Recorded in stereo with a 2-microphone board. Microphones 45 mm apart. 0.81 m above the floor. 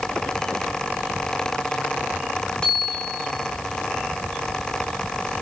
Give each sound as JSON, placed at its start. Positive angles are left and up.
{"t": 2.6, "sound": "a bicycle bell", "side_deg": 20, "distance_m": 8.0}